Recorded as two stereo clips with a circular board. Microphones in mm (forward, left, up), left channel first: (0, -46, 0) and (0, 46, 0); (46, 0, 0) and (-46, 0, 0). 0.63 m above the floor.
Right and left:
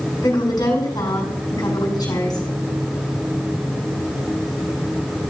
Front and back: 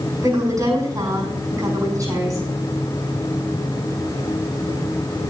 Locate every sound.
0.2 s a woman speaking: 130° right, 6 m